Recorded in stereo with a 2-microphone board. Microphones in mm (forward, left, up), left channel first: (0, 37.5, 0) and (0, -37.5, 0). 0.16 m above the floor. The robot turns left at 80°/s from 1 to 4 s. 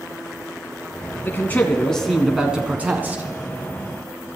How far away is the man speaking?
About 1.3 m.